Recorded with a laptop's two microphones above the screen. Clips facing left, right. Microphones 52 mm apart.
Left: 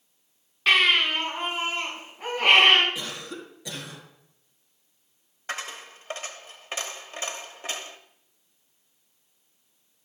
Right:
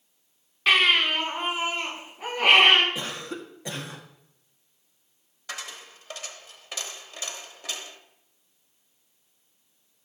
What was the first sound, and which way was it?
A baby crying, 5° right (ahead or behind).